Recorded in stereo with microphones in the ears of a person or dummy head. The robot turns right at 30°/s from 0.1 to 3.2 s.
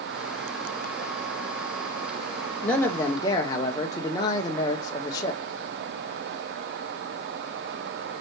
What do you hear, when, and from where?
2.6 s a man speaking: 5° left (ahead or behind), 0.7 m; by 5.4 s 25° left (ahead or behind), 0.7 m